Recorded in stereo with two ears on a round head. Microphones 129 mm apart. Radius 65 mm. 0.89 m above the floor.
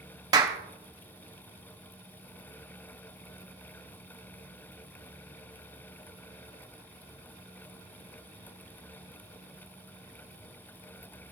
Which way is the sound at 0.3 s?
25° right (ahead or behind).